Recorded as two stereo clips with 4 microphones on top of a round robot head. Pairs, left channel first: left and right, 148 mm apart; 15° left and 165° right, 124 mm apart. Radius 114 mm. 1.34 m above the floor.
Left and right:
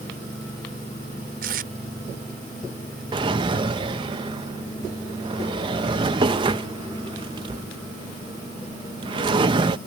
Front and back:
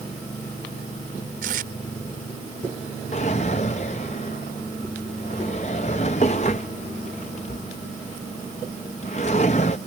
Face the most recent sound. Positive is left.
turn(degrees=-40)